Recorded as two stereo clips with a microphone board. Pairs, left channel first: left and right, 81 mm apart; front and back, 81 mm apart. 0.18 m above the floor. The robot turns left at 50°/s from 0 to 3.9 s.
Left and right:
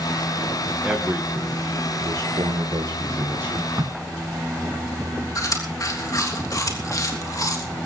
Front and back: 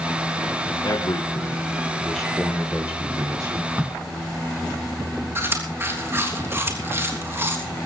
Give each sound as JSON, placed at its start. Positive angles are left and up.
{"t": 0.8, "sound": "a man speaking", "azimuth_deg": -15, "distance_m": 2.5}
{"t": 3.8, "sound": "a crack", "azimuth_deg": -115, "distance_m": 2.0}
{"t": 5.3, "sound": "chewing", "azimuth_deg": 125, "distance_m": 3.5}